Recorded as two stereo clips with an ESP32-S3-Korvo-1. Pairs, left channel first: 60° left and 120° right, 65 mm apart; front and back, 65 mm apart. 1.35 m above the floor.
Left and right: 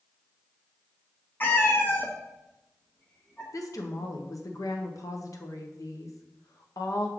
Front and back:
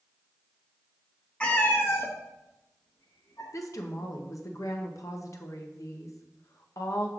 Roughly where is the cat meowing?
Ahead left.